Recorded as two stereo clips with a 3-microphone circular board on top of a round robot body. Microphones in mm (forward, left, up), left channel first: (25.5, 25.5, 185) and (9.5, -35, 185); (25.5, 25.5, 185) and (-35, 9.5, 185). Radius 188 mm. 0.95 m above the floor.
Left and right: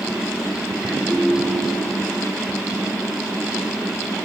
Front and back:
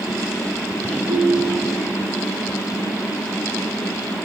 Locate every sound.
1.1 s a ringtone: straight behind, 8 m